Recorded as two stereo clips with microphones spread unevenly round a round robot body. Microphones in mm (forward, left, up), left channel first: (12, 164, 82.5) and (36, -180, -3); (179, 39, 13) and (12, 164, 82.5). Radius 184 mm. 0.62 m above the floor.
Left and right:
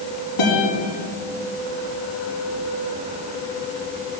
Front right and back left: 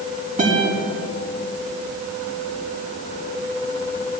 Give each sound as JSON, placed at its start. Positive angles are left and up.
{"t": 0.4, "sound": "a guitar", "azimuth_deg": 85, "distance_m": 4.0}